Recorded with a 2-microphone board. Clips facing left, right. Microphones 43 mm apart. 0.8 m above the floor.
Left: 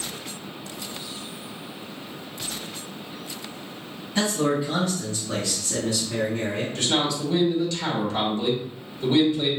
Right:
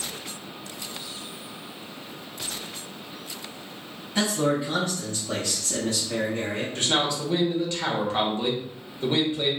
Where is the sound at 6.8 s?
30° right (ahead or behind), 1.3 m.